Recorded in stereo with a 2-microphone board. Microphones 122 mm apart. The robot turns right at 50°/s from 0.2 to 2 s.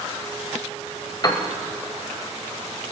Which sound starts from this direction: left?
A piano, at 1.2 s.